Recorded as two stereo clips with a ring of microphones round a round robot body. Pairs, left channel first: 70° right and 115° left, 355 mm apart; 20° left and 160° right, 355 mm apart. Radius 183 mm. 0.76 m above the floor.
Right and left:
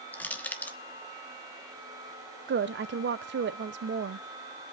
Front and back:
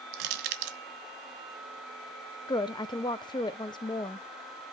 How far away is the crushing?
About 1.1 m.